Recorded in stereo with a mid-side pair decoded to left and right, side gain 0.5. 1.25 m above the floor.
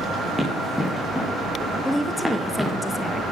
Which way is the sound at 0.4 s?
5° left.